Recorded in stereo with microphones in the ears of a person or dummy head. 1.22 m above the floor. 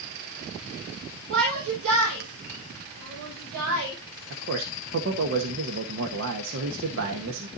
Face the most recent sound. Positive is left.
turn(degrees=-60)  # may be behind; listen again after turning